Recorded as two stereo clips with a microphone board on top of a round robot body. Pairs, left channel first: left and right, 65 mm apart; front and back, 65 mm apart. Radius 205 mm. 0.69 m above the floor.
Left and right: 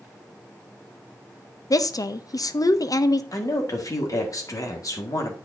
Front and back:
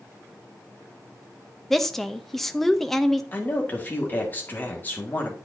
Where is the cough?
No cough in this recording.